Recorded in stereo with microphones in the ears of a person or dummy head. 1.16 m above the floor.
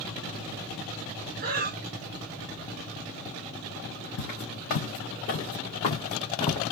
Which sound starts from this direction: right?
Breathing, at 1.4 s.